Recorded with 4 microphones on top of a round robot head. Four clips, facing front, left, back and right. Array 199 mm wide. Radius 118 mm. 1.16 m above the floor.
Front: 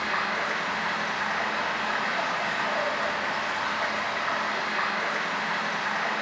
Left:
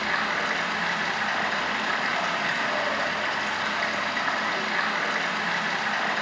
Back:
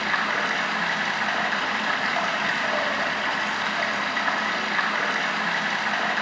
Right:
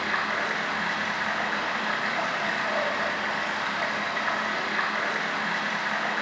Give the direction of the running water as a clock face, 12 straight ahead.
6 o'clock.